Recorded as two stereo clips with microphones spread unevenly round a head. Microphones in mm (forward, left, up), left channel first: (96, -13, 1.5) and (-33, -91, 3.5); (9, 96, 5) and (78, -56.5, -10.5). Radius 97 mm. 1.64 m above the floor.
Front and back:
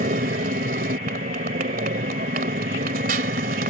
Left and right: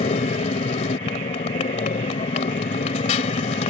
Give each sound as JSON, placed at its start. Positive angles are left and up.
{"t": 0.0, "sound": "a motorcycle", "azimuth_deg": 170}